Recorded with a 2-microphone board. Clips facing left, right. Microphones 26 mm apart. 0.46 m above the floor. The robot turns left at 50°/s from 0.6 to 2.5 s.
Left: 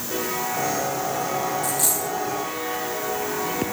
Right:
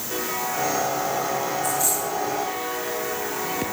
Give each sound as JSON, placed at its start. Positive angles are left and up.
{"t": 1.6, "sound": "a dropped coin", "side_deg": 65, "distance_m": 4.5}